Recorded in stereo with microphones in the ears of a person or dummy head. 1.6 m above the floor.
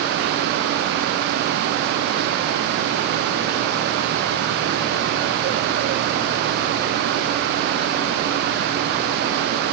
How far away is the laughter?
No laughter in this recording.